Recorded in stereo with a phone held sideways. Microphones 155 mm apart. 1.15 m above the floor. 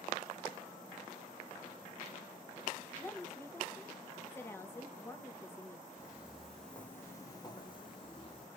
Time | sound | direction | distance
3.0 | a woman speaking | 15° left (ahead or behind) | 1.0 m
6.0 | footsteps | 10° right (ahead or behind) | 1.7 m